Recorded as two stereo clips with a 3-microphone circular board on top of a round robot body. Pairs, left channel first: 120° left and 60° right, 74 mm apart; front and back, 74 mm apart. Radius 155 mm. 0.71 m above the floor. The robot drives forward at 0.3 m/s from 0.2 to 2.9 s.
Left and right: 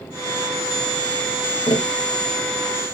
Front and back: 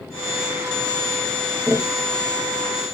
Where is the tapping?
100° left, 0.7 m; by 3.0 s 125° left, 0.8 m.